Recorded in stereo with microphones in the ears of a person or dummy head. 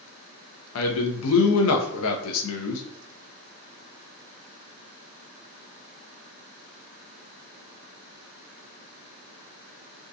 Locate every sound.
0.8 s a man speaking: 75° left (ahead or behind), 0.7 m